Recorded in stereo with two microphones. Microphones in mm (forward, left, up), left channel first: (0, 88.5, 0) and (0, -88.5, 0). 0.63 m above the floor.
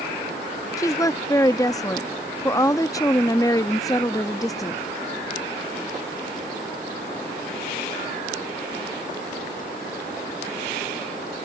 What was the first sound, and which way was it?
A woman speaking, 20° left (ahead or behind).